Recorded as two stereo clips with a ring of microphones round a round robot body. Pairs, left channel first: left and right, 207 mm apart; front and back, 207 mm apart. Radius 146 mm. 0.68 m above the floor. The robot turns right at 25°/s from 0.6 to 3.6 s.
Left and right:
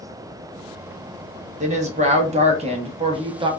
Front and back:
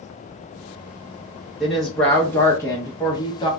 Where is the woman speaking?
90° right, 0.7 m; by 3.5 s 45° right, 0.7 m.